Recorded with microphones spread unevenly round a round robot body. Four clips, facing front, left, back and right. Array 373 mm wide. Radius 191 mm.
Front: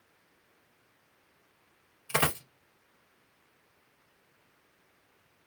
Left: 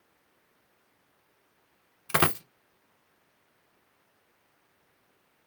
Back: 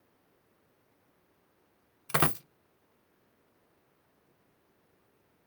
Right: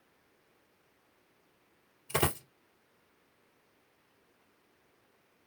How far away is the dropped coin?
About 0.9 m.